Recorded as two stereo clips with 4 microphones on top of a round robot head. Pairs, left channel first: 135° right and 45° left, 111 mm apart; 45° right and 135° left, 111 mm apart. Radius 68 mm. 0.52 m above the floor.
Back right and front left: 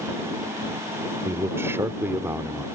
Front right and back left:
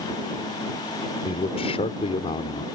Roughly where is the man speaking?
Ahead.